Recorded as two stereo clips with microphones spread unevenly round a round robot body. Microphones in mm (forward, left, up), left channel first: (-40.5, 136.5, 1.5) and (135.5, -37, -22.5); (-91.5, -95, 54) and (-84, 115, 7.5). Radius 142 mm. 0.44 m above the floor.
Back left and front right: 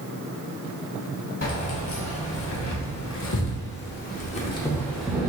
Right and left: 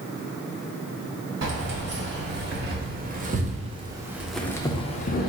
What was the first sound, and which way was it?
Keys jangling, 100° left.